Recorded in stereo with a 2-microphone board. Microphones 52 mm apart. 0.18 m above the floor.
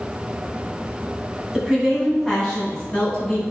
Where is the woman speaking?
15° right (ahead or behind), 1.2 m; by 3.4 s 25° left (ahead or behind), 2.0 m.